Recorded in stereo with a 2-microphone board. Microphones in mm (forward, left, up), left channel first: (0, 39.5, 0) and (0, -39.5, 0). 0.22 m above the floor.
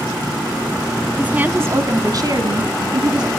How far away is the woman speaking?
About 1.5 m.